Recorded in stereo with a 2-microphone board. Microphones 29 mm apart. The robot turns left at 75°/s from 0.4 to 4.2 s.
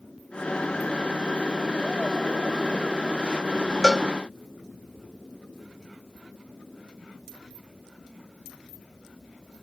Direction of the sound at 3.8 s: 10° right (ahead or behind).